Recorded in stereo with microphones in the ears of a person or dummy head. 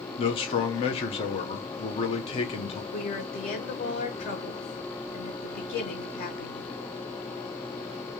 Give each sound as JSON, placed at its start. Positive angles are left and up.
{"t": 0.2, "sound": "a man speaking", "side_deg": 30, "distance_m": 0.7}
{"t": 2.9, "sound": "a woman speaking", "side_deg": 45, "distance_m": 1.3}